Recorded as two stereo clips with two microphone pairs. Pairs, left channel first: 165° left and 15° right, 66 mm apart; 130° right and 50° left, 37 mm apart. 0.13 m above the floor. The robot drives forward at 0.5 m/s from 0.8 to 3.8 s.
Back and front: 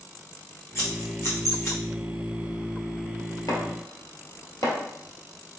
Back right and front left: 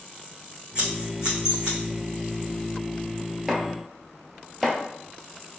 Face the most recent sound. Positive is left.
turn(degrees=145)